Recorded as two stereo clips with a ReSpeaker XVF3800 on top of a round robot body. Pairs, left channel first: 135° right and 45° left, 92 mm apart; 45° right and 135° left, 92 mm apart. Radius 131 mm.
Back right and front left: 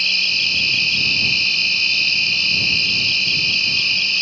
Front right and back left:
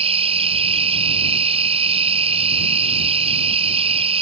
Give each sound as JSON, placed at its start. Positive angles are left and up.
{"t": 0.0, "sound": "an insect", "azimuth_deg": 135}